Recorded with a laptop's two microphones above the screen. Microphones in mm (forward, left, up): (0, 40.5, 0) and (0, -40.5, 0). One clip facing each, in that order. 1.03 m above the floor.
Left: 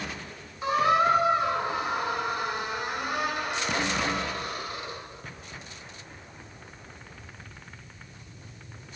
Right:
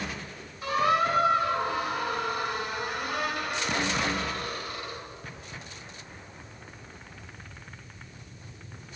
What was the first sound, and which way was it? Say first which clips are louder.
A squeak: left 2 dB; 25° left (ahead or behind).